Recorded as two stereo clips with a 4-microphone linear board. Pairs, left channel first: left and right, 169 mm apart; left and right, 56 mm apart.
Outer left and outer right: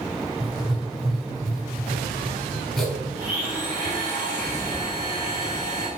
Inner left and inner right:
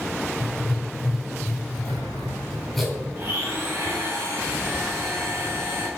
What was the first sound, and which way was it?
Writing, centre (ahead or behind).